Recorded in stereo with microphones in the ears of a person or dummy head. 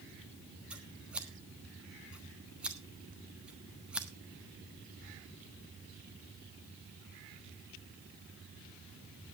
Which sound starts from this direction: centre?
Scissors, at 0.7 s.